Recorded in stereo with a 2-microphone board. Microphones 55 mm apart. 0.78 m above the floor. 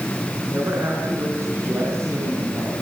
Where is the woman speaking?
50° right (ahead or behind), 8 m; by 2.7 s 60° right (ahead or behind), 5.5 m.